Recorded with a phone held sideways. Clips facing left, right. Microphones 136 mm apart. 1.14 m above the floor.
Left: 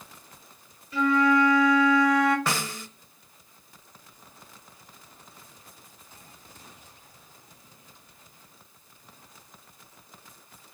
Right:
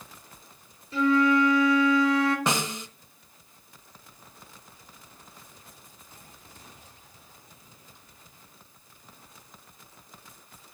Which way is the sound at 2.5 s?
20° right (ahead or behind).